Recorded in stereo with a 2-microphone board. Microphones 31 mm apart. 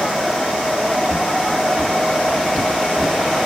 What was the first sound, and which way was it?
Footsteps, 75° right (ahead or behind).